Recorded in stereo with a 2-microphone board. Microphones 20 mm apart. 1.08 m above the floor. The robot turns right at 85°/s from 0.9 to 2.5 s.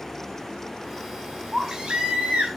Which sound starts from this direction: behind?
A baby crying, at 1.5 s.